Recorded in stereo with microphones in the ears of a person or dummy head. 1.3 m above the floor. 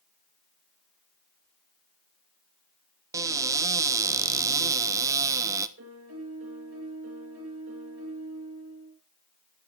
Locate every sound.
3.1 s a cupboard door: 20° right (ahead or behind), 0.7 m
5.8 s a piano: 75° right (ahead or behind), 4.5 m